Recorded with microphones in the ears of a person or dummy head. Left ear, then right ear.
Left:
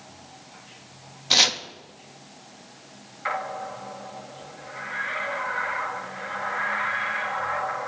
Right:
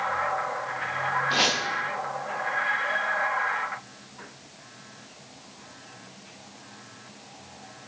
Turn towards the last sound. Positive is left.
turn(degrees=50)  # may be behind; listen again after turning